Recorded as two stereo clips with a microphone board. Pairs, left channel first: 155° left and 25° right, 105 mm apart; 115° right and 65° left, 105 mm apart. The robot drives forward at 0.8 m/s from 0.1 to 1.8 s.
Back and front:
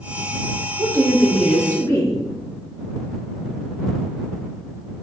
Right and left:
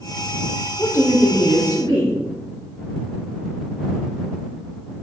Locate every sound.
0.8 s a woman speaking: 50° right, 0.6 m; by 2.2 s 150° right, 0.8 m